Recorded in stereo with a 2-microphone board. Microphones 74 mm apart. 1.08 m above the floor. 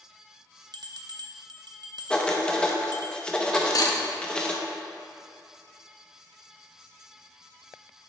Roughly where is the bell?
Right.